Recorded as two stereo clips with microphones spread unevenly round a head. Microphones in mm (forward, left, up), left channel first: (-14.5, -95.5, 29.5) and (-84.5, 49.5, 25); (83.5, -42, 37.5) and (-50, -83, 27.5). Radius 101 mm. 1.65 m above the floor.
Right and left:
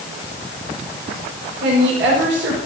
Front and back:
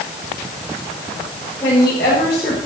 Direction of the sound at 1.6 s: 90° left.